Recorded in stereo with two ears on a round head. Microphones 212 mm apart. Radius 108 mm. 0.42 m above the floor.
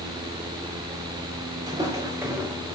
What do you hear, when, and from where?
1.7 s footsteps: 20° right (ahead or behind), 3 m; by 2.8 s 5° right (ahead or behind), 2.5 m